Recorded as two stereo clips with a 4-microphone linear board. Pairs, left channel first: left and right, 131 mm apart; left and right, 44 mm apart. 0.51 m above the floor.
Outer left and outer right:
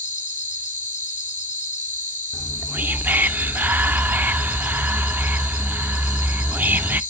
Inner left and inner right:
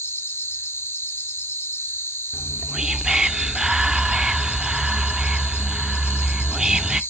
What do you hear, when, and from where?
0.0 s an insect: 75° left (ahead or behind), 1.6 m
2.3 s whispering: 15° right (ahead or behind), 0.7 m